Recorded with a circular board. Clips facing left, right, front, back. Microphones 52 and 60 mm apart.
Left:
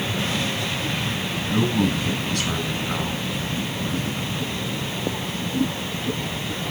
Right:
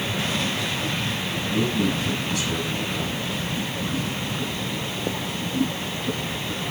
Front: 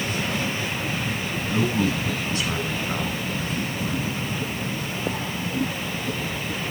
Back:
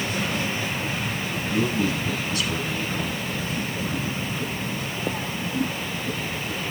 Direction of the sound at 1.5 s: 55° left.